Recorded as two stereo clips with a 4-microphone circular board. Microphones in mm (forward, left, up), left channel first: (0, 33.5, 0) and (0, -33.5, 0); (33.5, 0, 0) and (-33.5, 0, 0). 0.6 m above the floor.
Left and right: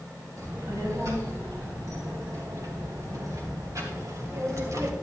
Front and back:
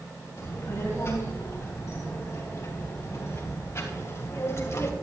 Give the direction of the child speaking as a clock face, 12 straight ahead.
2 o'clock.